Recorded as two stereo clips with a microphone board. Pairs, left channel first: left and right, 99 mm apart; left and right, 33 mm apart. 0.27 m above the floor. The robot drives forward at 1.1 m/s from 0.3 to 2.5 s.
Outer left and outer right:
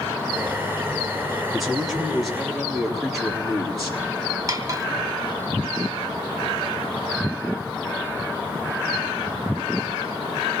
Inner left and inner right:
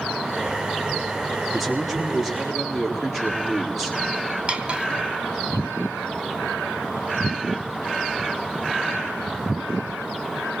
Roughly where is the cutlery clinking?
Right.